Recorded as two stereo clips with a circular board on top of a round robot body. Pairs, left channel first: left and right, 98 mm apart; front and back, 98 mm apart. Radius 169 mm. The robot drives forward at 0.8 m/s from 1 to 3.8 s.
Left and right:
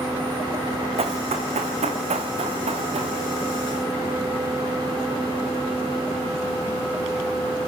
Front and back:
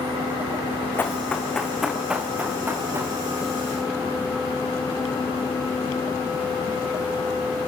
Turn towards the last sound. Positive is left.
turn(degrees=-120)